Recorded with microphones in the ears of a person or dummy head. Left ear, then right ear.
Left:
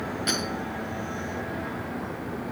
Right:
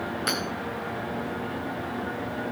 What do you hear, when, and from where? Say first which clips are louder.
0.3 s hammering: left 1 dB; 25° right (ahead or behind), 2.5 m